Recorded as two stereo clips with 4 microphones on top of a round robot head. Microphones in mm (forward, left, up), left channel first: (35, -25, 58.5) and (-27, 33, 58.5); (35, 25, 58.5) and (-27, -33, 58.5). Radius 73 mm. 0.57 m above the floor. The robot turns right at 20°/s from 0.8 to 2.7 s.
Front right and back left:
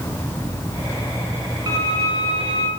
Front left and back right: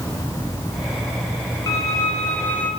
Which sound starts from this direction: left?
A violin, at 1.7 s.